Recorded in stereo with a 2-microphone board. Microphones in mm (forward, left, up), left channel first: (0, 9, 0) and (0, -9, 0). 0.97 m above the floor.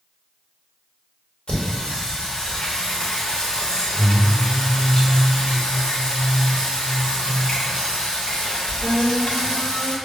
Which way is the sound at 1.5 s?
65° left (ahead or behind).